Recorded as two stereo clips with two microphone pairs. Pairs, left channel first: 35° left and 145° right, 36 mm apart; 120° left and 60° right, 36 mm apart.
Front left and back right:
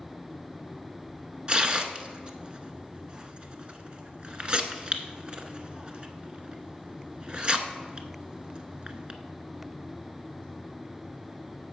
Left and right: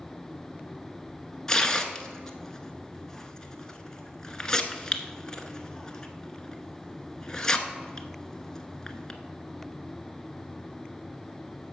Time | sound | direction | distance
1.5 | tearing paper | 175° right | 1.0 m